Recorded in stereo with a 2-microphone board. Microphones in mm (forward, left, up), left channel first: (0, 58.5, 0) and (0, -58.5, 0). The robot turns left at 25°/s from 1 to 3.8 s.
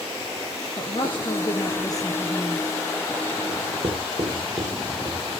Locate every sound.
0.8 s a woman speaking: 65° left, 2 m; by 2.7 s 20° left, 2 m
3.5 s writing: 45° right (ahead or behind), 9 m; by 5.4 s 50° right (ahead or behind), 9 m